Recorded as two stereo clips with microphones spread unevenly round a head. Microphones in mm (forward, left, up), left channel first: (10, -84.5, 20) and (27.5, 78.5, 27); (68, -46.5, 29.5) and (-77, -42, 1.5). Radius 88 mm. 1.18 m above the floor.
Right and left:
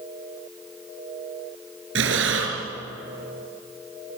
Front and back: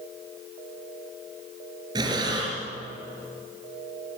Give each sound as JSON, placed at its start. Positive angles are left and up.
{"t": 1.9, "sound": "breathing", "azimuth_deg": 105, "distance_m": 4.5}